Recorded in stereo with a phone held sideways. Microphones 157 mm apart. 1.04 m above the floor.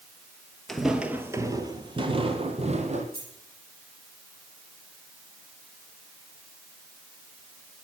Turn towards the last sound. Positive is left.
turn(degrees=-85)